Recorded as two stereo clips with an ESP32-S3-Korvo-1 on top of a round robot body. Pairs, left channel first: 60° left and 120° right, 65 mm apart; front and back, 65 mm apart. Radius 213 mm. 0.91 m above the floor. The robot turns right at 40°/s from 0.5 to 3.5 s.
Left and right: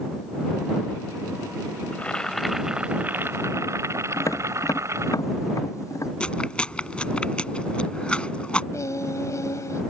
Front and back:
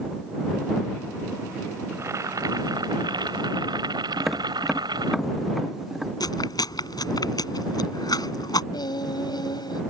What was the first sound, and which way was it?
Boiling, 125° left.